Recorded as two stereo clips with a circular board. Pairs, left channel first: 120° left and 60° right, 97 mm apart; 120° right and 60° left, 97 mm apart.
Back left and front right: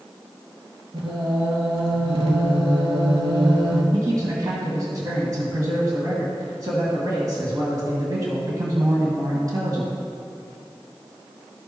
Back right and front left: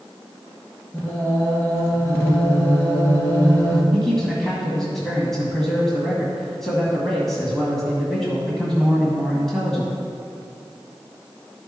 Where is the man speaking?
35° right, 1.9 m.